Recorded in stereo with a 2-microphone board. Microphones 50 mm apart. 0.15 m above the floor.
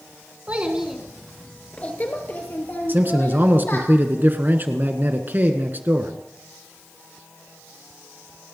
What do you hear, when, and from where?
0.5 s a child speaking: 30° right (ahead or behind), 1.4 m; by 3.9 s 50° left (ahead or behind), 4.5 m
2.9 s a man speaking: 40° right (ahead or behind), 1.4 m